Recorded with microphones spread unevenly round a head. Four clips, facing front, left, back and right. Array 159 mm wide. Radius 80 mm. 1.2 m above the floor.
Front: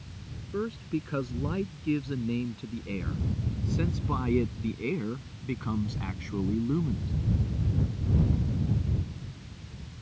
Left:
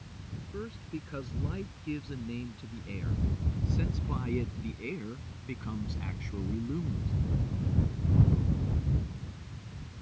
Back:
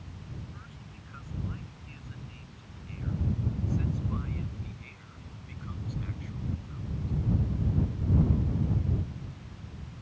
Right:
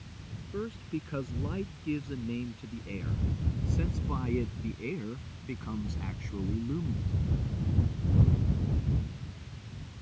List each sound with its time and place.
0.5 s a man speaking: 15° right; by 7.1 s straight ahead